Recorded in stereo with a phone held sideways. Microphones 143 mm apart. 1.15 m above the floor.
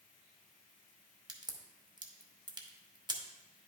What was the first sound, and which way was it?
A crack, 30° right (ahead or behind).